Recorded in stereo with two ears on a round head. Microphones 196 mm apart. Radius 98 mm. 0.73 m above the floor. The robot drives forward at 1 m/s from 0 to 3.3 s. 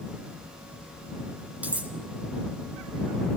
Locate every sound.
1.6 s cutlery clinking: 5° right (ahead or behind), 3.5 m